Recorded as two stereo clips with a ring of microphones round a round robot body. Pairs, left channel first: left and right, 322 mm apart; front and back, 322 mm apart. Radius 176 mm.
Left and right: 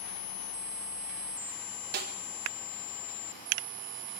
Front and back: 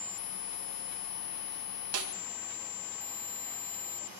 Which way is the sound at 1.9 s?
145° right.